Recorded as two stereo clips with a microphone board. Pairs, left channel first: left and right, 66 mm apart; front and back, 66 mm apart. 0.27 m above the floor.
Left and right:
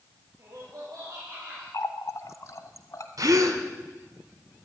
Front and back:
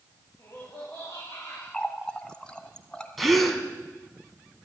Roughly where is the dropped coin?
I don't hear a dropped coin.